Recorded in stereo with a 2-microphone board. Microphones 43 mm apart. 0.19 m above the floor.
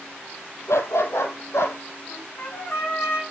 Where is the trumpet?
60° left (ahead or behind), 9 m.